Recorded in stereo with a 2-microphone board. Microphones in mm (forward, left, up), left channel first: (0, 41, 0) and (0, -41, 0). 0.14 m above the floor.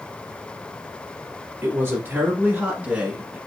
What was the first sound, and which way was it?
A woman speaking, 30° right (ahead or behind).